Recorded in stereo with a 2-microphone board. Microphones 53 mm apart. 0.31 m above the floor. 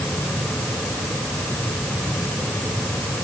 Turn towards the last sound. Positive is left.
No sound to turn to.